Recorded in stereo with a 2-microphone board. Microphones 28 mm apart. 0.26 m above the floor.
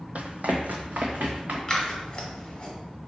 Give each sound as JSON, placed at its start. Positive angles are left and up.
{"t": 0.1, "sound": "running footsteps", "side_deg": -60, "distance_m": 0.5}
{"t": 1.7, "sound": "scissors", "side_deg": 25, "distance_m": 1.1}